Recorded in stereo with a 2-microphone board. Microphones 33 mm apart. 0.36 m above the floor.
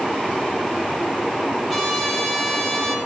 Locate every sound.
1.7 s a trumpet: centre (ahead or behind), 5 m